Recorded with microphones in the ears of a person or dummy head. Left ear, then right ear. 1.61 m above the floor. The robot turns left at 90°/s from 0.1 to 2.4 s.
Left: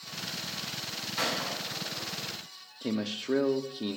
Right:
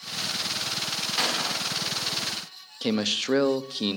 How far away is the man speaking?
About 0.6 m.